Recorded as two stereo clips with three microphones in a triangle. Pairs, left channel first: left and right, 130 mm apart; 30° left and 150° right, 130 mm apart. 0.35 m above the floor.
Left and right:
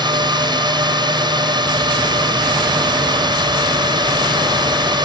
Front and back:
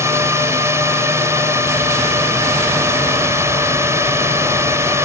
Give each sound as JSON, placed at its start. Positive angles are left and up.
{"t": 0.0, "sound": "a drone", "azimuth_deg": -100}